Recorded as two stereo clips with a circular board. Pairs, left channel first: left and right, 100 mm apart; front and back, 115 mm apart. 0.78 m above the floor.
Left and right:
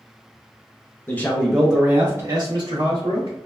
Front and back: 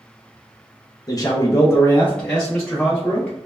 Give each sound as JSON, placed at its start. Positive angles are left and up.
{"t": 1.1, "sound": "a man speaking", "azimuth_deg": 30, "distance_m": 0.7}